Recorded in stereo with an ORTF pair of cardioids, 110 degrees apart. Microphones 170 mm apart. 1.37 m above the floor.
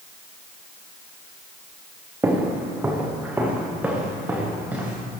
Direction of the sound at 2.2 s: 10° right.